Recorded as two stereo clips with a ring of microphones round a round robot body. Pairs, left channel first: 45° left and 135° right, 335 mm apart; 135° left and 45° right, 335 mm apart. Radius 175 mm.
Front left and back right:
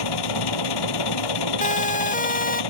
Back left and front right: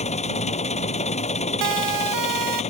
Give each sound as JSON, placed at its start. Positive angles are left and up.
{"t": 0.0, "sound": "an engine running", "azimuth_deg": 65}
{"t": 1.6, "sound": "a siren", "azimuth_deg": -20}